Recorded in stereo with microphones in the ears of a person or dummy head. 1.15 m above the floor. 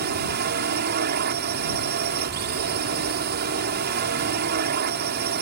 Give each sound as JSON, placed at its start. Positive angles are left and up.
{"t": 0.0, "sound": "a drone", "side_deg": -50}